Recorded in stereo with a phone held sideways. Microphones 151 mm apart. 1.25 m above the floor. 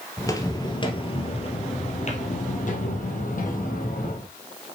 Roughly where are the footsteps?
Centre.